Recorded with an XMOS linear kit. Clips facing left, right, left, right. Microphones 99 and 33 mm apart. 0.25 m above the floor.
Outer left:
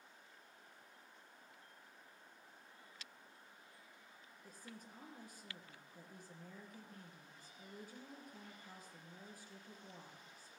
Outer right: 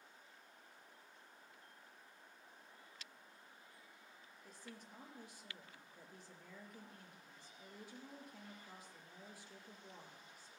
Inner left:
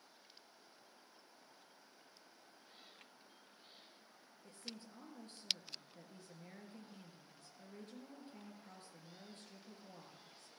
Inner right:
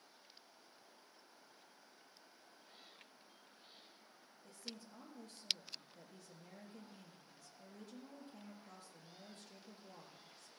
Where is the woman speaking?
45° left (ahead or behind), 3.5 m.